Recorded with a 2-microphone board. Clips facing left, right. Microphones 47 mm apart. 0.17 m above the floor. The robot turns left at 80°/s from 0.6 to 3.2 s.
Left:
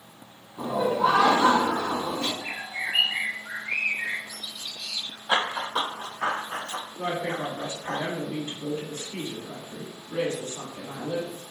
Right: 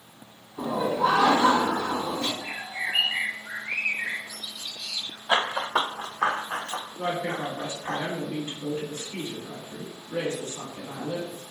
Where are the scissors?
I don't hear scissors.